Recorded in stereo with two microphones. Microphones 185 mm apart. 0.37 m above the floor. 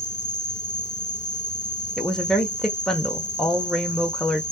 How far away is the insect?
About 0.8 m.